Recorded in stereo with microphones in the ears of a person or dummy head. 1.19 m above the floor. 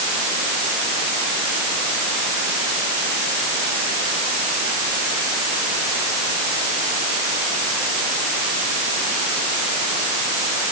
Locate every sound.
Only background noise.